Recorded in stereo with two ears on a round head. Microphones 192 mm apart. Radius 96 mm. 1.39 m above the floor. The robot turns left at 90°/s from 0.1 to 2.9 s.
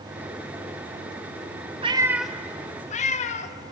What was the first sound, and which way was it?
A cat meowing, 25° right (ahead or behind).